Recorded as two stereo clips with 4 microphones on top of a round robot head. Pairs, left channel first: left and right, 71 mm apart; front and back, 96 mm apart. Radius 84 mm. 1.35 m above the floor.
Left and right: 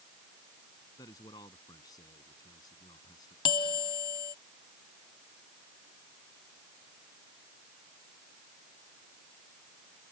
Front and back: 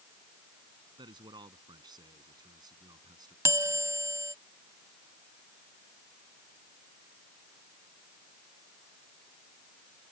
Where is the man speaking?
140° left; by 3.4 s 135° left.